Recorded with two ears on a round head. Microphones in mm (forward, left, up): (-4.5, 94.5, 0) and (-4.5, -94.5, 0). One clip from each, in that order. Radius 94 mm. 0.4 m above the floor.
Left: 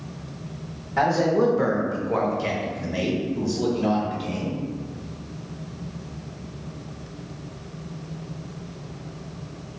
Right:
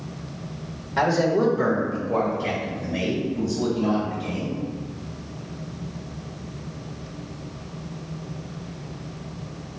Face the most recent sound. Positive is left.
turn(degrees=55)  # may be behind; listen again after turning